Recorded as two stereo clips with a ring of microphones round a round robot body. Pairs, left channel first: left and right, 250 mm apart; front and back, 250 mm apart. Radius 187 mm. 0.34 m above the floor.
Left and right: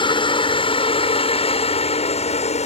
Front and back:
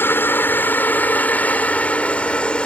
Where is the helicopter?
65° left; by 2.7 s 80° left.